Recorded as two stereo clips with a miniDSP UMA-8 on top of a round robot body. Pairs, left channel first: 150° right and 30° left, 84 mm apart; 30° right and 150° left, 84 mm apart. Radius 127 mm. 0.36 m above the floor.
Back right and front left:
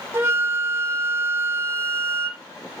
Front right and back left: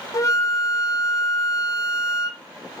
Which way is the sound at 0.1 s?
15° right.